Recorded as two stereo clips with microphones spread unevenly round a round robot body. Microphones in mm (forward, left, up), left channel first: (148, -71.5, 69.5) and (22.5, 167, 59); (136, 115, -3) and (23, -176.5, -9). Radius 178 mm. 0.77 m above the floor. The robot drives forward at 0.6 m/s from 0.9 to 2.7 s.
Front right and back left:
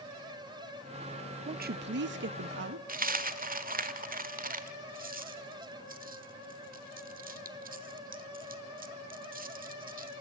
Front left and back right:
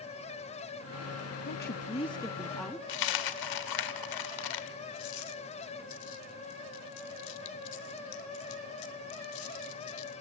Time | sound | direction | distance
1.5 | a woman speaking | 80° left | 0.5 m
2.9 | a dropped coin | 55° left | 1.2 m